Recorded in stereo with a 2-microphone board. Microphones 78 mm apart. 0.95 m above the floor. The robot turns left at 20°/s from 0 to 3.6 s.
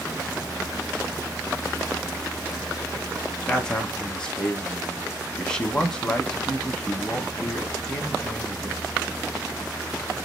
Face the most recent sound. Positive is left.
turn(degrees=10)  # may be behind; listen again after turning